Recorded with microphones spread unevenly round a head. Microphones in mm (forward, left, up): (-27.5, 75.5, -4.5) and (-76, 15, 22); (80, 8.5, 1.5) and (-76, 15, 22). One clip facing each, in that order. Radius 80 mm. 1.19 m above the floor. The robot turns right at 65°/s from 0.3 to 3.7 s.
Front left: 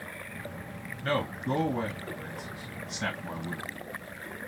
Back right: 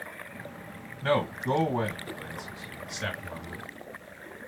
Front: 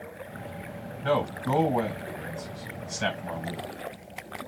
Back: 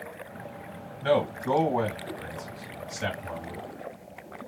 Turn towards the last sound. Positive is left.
turn(degrees=50)